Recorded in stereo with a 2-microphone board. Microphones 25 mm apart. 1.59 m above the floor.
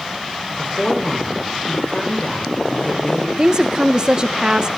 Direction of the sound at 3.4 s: 40° right (ahead or behind).